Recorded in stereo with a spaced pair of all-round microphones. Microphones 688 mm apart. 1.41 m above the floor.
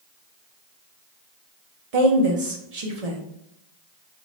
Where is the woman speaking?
60° right (ahead or behind), 1.0 m.